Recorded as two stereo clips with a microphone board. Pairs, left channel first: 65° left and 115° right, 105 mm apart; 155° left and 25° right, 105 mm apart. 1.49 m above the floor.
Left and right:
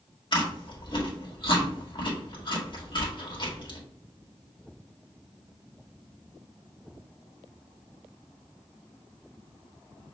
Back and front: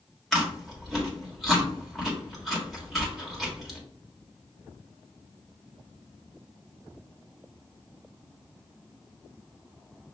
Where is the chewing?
65° left, 1.6 m.